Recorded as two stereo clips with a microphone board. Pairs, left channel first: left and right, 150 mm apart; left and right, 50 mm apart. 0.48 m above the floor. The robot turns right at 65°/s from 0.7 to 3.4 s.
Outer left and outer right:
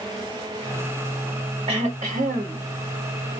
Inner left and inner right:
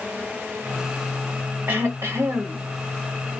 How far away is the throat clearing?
About 1.3 m.